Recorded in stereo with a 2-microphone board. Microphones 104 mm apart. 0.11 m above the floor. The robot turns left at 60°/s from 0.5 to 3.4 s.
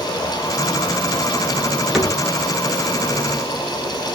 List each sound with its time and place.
1.9 s a cupboard door: centre (ahead or behind), 1.8 m; by 2.2 s 5° left (ahead or behind), 1.8 m